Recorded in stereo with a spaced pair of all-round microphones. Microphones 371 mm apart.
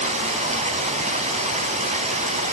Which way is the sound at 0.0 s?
20° right (ahead or behind).